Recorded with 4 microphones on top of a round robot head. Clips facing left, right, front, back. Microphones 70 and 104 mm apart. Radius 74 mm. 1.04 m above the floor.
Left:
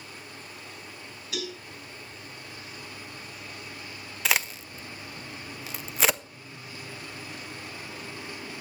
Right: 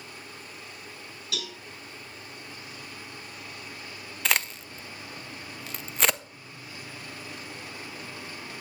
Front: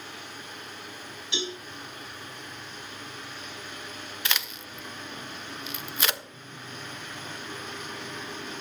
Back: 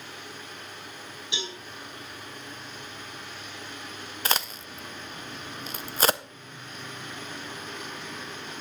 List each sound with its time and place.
1.3 s a cowbell: 105° right, 9 m
4.2 s a crack: 175° left, 0.6 m